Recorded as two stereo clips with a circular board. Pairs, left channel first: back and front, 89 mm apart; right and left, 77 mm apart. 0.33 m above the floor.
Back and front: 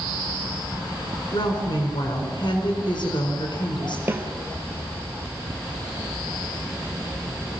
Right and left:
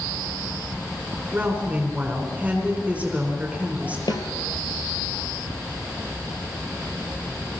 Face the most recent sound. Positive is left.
turn(degrees=-65)